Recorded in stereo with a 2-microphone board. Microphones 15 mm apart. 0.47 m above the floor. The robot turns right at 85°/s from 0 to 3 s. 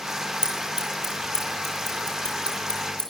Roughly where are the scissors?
Right.